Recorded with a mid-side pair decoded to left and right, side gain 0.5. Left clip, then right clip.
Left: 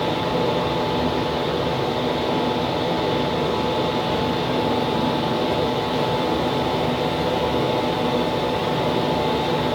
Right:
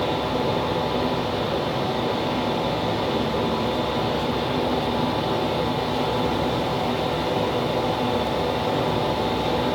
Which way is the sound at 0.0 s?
55° left.